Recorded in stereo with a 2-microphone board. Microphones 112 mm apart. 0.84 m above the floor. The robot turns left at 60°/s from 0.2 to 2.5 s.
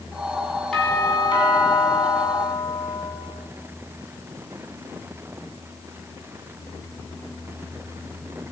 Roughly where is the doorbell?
Behind.